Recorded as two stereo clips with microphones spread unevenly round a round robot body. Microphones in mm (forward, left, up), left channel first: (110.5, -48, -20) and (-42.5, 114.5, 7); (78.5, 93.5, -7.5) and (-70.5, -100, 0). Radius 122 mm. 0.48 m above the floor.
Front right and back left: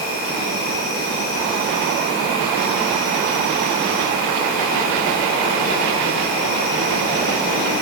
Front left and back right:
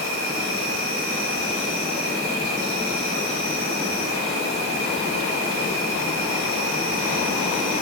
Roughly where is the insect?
Left.